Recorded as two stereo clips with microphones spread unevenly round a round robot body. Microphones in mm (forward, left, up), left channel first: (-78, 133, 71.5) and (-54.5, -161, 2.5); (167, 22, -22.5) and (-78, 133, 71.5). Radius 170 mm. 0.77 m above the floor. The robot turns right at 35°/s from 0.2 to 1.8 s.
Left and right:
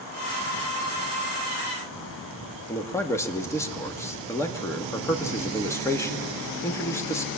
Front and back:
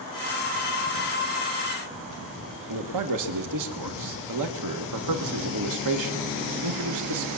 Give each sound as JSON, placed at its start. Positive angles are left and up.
{"t": 2.7, "sound": "a man speaking", "azimuth_deg": -175, "distance_m": 1.5}